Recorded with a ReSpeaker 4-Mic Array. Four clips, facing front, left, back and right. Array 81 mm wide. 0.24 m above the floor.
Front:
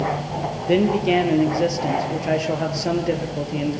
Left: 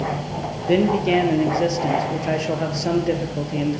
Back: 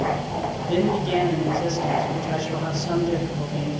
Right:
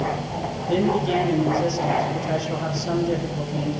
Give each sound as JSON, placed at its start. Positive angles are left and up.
{"t": 0.7, "sound": "a man speaking", "azimuth_deg": 45, "distance_m": 6.0}